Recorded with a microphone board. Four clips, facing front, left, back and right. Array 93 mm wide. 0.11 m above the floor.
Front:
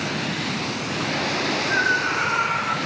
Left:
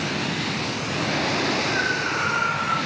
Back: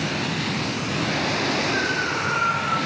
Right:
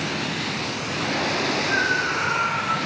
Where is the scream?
20° right, 6 m; by 2.8 s 15° right, 6.5 m.